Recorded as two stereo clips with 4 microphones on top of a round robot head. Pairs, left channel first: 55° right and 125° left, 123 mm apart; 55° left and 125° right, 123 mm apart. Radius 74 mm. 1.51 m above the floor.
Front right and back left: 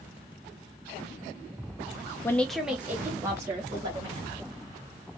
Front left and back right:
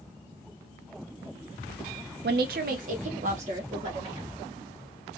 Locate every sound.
2.2 s a woman speaking: 120° right, 0.5 m; by 4.4 s 165° right, 2.5 m